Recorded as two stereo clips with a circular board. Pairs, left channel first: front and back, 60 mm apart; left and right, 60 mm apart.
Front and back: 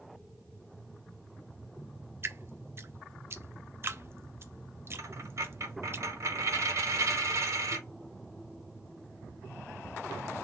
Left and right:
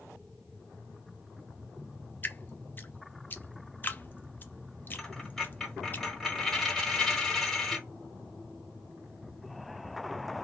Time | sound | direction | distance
2.2 | dripping | 140° left | 0.5 m
5.0 | a dropped coin | 170° left | 1.6 m